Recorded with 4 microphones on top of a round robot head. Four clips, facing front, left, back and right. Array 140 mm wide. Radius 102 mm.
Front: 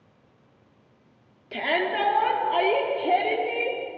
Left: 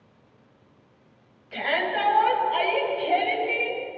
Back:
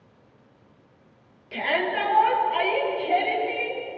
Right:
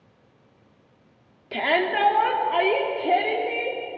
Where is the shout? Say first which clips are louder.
Right 3 dB, even; 70° right, 3 m; by 3.8 s 40° right, 4 m.